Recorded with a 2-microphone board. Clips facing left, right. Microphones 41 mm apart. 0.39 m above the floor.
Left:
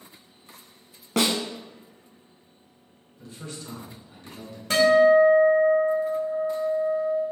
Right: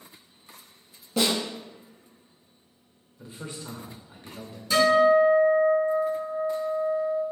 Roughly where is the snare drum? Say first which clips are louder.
Left 1 dB; left.